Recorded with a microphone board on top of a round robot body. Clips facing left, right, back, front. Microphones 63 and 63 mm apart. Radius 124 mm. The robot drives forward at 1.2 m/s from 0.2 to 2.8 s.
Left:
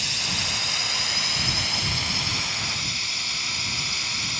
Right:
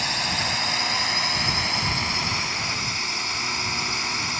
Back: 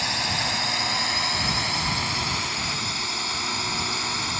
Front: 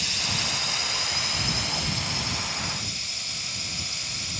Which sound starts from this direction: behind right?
A drone, at 0.0 s.